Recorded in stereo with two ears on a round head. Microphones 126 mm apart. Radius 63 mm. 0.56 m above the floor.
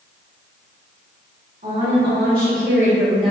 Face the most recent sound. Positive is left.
turn(degrees=0)  # may be behind; listen again after turning